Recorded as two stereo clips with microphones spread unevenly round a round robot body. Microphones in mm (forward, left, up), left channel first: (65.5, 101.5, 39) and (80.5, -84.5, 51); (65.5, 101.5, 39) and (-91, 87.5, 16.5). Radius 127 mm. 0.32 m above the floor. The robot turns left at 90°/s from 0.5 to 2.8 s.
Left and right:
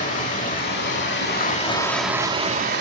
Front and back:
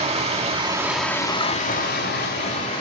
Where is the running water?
145° left, 3 m; by 2.8 s 65° right, 3 m.